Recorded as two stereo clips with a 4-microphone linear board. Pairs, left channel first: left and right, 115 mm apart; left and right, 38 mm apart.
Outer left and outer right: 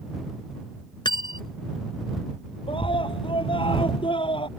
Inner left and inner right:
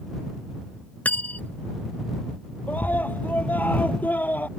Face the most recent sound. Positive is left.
turn(degrees=50)  # may be behind; listen again after turning